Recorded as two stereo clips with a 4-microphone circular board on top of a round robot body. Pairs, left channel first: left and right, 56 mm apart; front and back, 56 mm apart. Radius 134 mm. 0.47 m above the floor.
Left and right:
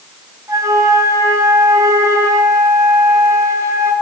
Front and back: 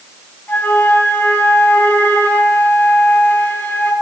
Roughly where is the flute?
Ahead right.